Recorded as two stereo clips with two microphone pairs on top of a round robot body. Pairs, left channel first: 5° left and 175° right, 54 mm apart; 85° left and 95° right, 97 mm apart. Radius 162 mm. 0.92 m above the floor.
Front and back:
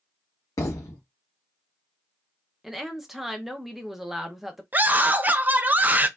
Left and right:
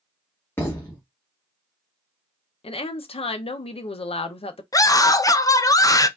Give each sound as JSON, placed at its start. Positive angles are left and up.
{"t": 0.6, "sound": "a thud", "azimuth_deg": 15, "distance_m": 0.5}
{"t": 2.6, "sound": "a woman speaking", "azimuth_deg": 100, "distance_m": 0.7}
{"t": 4.7, "sound": "a scream", "azimuth_deg": 135, "distance_m": 0.7}